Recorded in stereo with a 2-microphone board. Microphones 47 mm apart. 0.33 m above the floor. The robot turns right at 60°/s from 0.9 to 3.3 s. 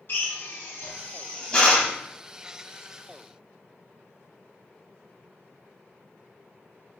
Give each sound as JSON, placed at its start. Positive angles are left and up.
{"t": 0.1, "sound": "a drill", "side_deg": 55, "distance_m": 1.3}